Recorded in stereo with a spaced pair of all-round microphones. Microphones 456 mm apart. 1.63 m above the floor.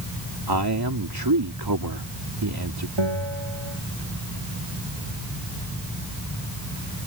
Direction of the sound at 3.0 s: 80° right.